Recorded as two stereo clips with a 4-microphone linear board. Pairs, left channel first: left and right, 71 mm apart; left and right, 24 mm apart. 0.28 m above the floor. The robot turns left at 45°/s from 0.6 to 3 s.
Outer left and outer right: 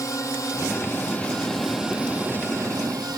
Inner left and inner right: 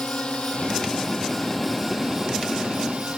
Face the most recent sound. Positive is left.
turn(degrees=-60)